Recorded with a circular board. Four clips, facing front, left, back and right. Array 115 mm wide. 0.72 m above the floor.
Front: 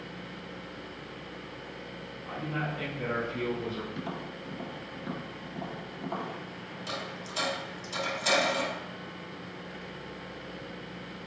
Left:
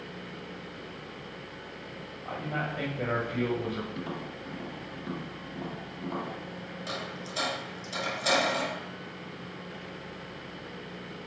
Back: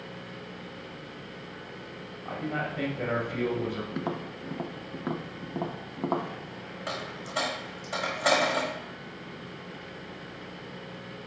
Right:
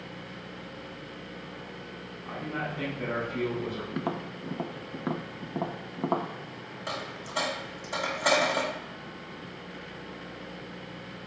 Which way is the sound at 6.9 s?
155° right.